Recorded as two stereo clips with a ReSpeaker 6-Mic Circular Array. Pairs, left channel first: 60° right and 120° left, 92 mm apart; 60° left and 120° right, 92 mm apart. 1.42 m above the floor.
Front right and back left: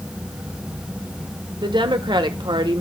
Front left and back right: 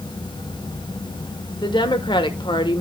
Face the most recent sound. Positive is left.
turn(degrees=90)